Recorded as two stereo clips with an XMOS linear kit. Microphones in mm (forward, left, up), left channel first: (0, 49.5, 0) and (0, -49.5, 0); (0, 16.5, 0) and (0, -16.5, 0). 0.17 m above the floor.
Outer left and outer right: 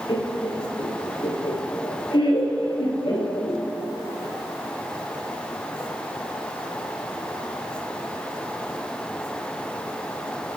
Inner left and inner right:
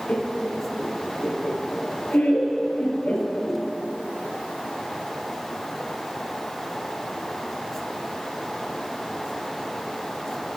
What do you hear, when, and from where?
0.1 s laughter: 50° left (ahead or behind), 3 m